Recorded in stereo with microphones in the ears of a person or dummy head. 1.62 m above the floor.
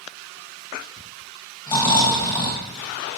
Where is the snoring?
20° left (ahead or behind), 1.7 m.